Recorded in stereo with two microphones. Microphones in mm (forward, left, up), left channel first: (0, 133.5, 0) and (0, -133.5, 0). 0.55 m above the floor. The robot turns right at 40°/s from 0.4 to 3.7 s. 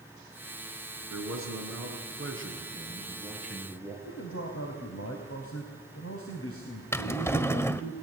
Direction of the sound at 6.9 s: 10° left (ahead or behind).